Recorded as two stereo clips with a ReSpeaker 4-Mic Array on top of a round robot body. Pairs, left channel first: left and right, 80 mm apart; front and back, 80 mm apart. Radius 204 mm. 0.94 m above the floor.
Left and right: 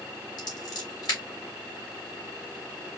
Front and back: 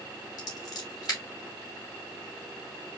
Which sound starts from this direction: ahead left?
Scissors, at 0.4 s.